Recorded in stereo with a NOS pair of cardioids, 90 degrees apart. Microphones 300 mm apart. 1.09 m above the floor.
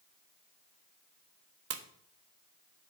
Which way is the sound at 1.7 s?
50° right.